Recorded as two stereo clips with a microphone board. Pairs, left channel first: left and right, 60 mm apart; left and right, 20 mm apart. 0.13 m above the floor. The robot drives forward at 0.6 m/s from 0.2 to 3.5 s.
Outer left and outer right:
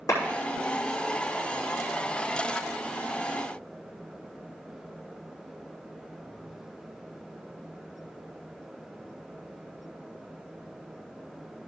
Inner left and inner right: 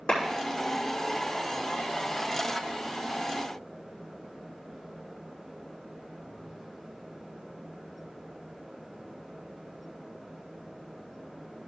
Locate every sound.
0.1 s a clap: 70° left (ahead or behind), 5.5 m